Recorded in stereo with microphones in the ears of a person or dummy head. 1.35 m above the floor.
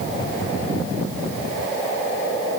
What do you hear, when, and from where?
Only background noise.